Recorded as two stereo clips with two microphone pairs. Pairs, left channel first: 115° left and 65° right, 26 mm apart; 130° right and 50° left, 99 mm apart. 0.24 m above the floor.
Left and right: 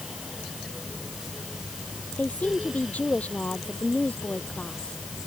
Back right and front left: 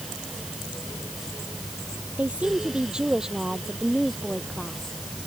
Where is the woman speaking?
125° left; by 5.0 s 145° left.